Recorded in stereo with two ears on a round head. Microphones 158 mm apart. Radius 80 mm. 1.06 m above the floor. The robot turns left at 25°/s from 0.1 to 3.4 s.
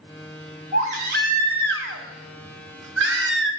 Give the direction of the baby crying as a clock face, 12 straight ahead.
1 o'clock.